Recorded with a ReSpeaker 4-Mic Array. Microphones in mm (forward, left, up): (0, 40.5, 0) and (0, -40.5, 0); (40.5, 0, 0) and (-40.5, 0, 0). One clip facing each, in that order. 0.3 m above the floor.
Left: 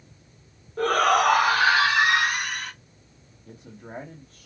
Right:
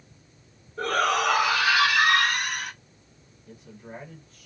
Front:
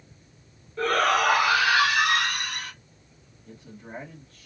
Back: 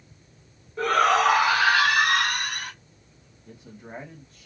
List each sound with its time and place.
0.8 s a shout: 110° left, 2.5 m; by 2.7 s 165° right, 1.6 m
3.5 s a man speaking: 110° left, 1.3 m